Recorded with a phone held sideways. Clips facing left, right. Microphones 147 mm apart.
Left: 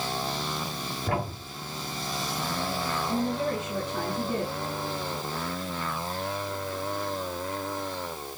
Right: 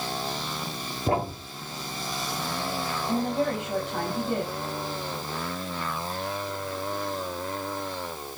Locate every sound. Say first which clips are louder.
1.1 s a thud: right 5 dB; 30° right (ahead or behind), 1.7 m
3.1 s a woman speaking: right 3 dB; 75° right (ahead or behind), 6 m